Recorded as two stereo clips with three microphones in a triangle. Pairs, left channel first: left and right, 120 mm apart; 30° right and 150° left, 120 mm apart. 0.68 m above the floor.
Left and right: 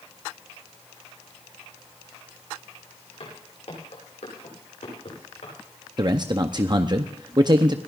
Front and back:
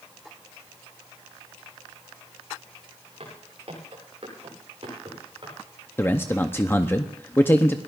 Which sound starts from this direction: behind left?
Footsteps, at 3.2 s.